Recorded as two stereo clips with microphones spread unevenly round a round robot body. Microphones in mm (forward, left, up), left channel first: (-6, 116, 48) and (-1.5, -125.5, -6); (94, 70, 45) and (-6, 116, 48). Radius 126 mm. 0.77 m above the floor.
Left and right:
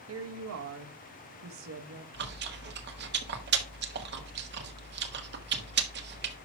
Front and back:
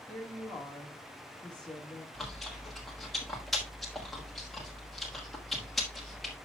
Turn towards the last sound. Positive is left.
turn(degrees=-115)